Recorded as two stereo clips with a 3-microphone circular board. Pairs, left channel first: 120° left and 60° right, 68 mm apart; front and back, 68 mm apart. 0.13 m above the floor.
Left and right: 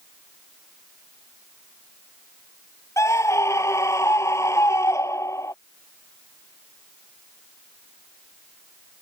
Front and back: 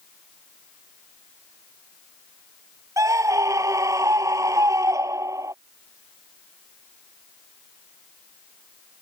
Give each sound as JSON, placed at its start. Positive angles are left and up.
{"t": 3.0, "sound": "a scream", "azimuth_deg": 155}